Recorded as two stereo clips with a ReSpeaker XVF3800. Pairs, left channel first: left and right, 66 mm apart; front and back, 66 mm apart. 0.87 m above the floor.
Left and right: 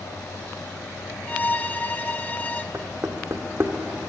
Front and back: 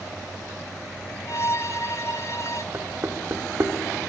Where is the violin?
30° left, 0.6 m.